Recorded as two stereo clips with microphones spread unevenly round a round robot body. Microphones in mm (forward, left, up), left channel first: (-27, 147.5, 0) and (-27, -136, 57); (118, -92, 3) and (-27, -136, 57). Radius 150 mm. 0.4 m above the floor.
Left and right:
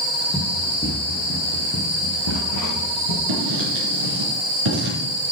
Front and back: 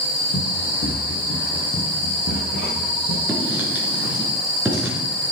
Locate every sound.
0.3 s running footsteps: 15° left, 3.5 m; by 3.2 s 60° left, 4 m
3.3 s writing: 80° right, 4.5 m